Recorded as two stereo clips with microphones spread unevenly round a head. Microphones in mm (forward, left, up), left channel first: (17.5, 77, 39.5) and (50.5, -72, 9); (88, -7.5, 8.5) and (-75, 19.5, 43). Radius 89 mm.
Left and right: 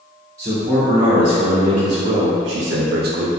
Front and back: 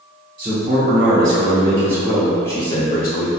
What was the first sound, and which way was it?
A man speaking, 135° right.